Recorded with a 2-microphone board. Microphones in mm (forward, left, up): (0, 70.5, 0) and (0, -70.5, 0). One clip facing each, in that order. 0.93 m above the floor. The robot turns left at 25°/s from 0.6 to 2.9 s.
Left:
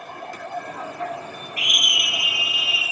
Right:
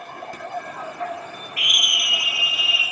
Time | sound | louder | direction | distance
1.6 | a scream | left 2 dB | 35° left | 6.5 m